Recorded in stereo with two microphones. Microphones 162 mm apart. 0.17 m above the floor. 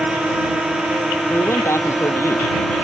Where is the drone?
5° right (ahead or behind); by 2.8 s centre (ahead or behind).